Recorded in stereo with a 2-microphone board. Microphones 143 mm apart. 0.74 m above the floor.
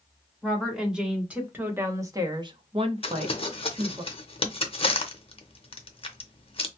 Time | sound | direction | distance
0.4 | a woman speaking | centre (ahead or behind) | 1.5 m
3.0 | crumpling | 40° left (ahead or behind) | 0.6 m